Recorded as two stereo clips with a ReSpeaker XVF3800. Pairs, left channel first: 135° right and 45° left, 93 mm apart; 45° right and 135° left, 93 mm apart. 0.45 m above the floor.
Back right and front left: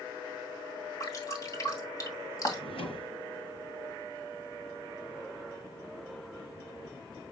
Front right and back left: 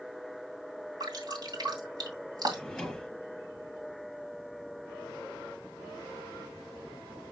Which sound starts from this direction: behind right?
A drawer, at 2.5 s.